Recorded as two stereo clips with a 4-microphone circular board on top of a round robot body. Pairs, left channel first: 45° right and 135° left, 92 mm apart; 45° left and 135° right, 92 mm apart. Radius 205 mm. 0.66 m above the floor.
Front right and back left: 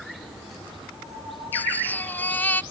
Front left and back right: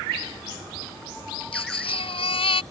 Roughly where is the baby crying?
Ahead left.